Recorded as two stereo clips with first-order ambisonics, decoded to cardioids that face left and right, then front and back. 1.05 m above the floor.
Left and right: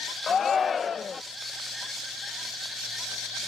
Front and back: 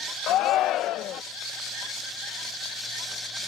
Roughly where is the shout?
Ahead left.